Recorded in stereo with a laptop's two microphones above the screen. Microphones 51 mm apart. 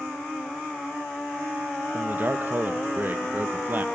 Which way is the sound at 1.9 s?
40° right (ahead or behind).